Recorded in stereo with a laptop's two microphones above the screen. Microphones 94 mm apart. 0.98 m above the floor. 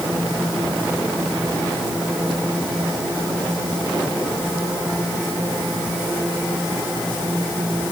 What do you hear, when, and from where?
Only background noise.